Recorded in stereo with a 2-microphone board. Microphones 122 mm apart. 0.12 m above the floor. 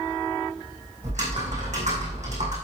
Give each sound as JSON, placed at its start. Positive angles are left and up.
{"t": 1.0, "sound": "typing on a keyboard", "side_deg": -70, "distance_m": 4.5}